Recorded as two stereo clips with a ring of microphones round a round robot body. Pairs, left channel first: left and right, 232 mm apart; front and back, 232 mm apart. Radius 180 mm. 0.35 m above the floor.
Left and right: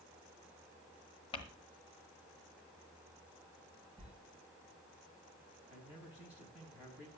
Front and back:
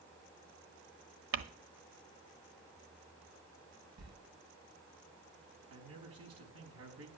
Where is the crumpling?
160° left, 1.2 m.